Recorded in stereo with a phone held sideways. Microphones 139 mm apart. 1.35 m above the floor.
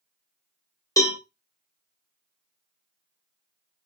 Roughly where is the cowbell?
Left.